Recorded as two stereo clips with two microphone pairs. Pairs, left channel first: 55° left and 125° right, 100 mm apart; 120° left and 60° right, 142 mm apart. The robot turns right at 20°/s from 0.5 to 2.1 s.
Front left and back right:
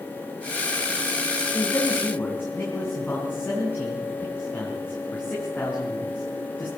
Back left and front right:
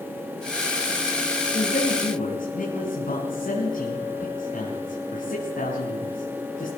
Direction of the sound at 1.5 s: 115° left.